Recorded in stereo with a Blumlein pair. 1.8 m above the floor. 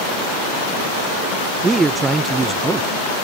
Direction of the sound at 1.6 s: 10° right.